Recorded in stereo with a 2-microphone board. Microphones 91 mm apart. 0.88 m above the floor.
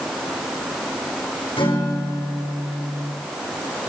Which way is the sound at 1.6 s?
85° left.